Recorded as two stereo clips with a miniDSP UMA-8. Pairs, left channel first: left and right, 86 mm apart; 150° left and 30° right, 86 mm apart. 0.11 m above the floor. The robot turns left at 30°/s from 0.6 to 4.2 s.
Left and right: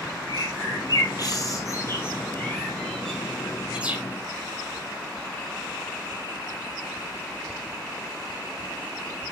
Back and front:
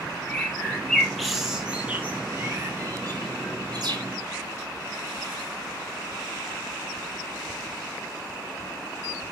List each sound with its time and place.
0.3 s a bird: 80° left, 2.0 m; by 4.0 s 25° right, 2.0 m